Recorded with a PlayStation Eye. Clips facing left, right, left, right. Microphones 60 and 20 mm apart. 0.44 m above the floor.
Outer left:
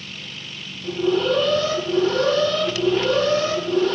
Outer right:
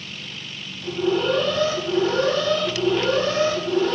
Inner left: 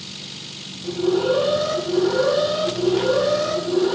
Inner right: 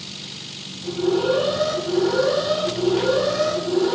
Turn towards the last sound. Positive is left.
turn(degrees=-35)  # may be behind; listen again after turning